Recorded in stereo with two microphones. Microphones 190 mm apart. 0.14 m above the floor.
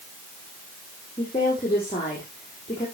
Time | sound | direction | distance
1.2 | a woman speaking | 30° left (ahead or behind) | 6 m